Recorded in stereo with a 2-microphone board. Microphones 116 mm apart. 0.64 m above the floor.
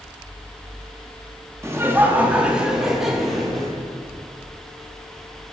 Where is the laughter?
25° right (ahead or behind), 0.7 m; by 3.7 s centre (ahead or behind), 1.4 m.